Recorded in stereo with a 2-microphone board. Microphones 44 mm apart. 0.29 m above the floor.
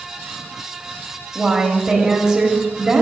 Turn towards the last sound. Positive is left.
turn(degrees=-10)  # may be behind; listen again after turning